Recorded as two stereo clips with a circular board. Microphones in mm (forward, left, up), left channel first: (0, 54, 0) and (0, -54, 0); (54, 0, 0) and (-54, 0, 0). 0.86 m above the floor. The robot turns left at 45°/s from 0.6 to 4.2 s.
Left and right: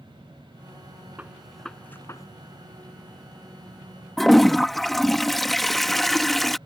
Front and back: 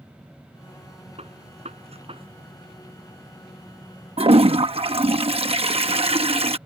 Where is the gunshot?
165° right; by 2.3 s 145° left.